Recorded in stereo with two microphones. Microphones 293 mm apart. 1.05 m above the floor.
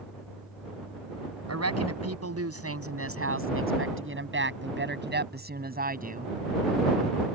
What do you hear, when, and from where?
1.5 s a woman speaking: 60° right (ahead or behind); by 6.3 s 25° right (ahead or behind)